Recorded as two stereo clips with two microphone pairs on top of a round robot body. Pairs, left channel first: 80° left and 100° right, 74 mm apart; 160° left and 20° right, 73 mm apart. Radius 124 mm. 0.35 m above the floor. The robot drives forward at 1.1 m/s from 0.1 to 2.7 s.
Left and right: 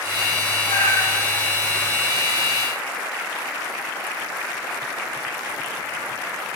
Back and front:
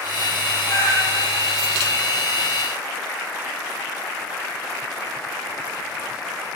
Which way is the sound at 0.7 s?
120° left.